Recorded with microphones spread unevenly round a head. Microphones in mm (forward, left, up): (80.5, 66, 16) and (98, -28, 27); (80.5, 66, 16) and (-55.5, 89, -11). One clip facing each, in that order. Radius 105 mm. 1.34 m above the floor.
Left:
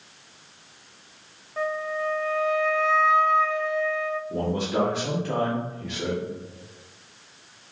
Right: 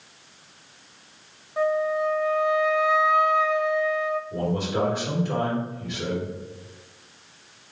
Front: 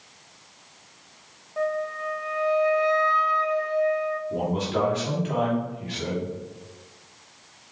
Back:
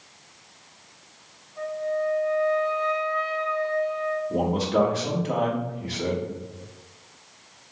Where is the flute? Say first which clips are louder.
Right 5 dB, even; 5° right, 0.8 m.